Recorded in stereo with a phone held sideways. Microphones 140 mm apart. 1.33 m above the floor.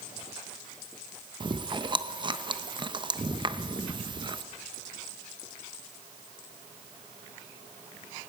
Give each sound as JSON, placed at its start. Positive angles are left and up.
{"t": 1.4, "sound": "chewing", "side_deg": -35, "distance_m": 0.8}